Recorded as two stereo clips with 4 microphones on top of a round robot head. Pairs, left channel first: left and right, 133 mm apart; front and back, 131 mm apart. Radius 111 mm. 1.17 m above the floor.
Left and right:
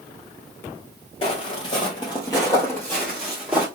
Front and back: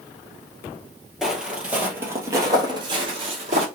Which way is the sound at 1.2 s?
95° left.